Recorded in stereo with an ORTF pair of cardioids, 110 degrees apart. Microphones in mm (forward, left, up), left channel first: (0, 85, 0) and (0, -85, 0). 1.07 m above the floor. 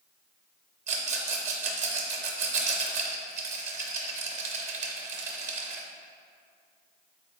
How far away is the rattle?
About 0.6 m.